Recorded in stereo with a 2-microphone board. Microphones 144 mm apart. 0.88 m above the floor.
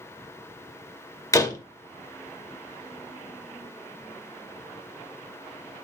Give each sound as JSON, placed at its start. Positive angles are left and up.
{"t": 1.3, "sound": "a door slam", "side_deg": 25, "distance_m": 1.9}